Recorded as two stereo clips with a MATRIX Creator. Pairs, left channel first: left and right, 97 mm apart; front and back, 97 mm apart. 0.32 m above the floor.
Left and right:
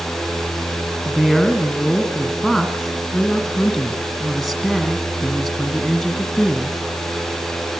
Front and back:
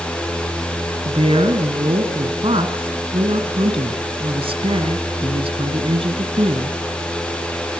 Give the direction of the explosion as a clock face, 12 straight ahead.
No explosion in this recording.